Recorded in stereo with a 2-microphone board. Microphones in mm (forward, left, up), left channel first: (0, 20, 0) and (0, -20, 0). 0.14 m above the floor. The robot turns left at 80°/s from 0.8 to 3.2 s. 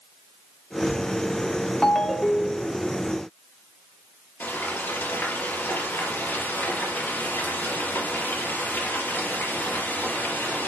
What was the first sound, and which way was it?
A ringtone, 15° left (ahead or behind).